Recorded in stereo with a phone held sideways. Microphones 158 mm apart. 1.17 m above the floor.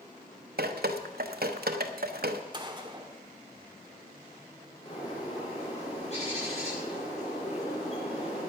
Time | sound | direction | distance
0.6 | dripping | 75° right (ahead or behind) | 1.0 m
2.5 | a gunshot | 30° right (ahead or behind) | 1.4 m
4.8 | a bird | 45° left (ahead or behind) | 8 m